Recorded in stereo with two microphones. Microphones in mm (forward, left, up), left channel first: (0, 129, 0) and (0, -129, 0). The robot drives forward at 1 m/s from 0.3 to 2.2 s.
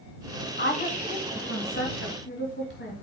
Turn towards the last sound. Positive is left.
turn(degrees=40)  # may be behind; listen again after turning